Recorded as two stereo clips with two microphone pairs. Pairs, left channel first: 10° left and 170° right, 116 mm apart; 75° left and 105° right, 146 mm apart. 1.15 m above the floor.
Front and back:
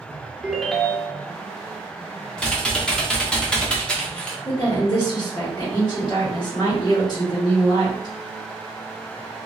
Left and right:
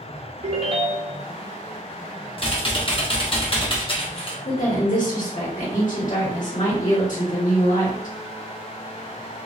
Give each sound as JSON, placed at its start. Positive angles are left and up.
{"t": 0.4, "sound": "a ringtone", "azimuth_deg": -85, "distance_m": 0.6}
{"t": 2.4, "sound": "typing on a keyboard", "azimuth_deg": 85, "distance_m": 0.8}
{"t": 4.5, "sound": "a woman speaking", "azimuth_deg": 60, "distance_m": 1.5}